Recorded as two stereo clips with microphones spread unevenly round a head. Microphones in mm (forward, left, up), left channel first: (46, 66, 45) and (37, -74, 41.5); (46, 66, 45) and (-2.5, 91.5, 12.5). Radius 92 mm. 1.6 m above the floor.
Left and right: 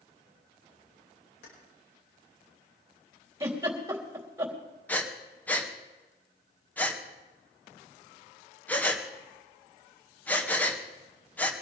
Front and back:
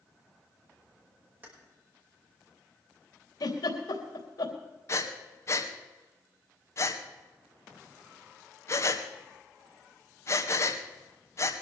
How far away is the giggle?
About 3.5 m.